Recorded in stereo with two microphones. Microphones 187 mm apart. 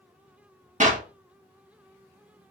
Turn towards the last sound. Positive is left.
turn(degrees=-45)  # may be behind; listen again after turning